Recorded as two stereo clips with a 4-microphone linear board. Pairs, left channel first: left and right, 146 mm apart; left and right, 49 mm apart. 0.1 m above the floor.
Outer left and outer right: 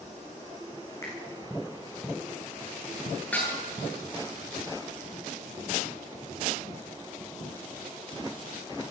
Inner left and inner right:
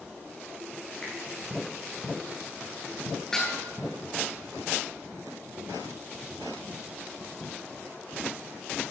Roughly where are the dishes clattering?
Centre.